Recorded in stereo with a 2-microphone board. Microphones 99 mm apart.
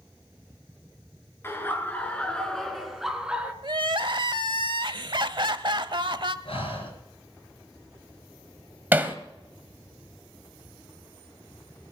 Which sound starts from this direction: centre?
Hammering, at 8.9 s.